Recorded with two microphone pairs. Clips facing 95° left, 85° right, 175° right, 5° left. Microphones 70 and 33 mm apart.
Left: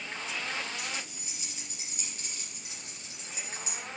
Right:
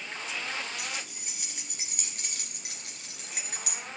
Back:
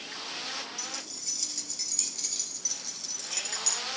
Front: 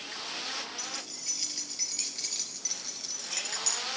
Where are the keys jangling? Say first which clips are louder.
Even, even; 55° right, 3.5 m; by 3.8 s 80° right, 2 m.